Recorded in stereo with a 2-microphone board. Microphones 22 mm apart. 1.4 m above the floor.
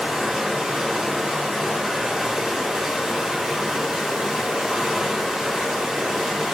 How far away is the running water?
About 0.8 m.